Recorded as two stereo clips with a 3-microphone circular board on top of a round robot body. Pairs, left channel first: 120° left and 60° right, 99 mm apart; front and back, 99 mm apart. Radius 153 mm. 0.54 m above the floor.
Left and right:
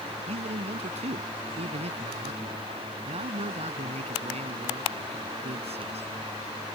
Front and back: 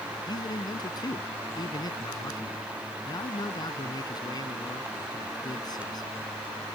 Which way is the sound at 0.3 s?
50° right.